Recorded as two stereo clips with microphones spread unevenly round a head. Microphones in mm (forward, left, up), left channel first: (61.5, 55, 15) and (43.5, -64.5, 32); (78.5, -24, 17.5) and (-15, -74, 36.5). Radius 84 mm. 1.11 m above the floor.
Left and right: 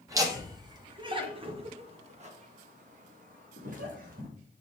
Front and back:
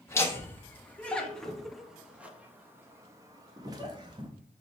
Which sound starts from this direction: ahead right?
Laughter, at 0.1 s.